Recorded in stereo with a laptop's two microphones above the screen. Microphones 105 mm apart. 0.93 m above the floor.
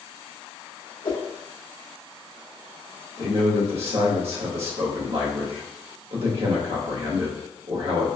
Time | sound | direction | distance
1.0 | a whoosh | 50° left (ahead or behind) | 1.0 m
3.2 | a man speaking | 70° right (ahead or behind) | 1.2 m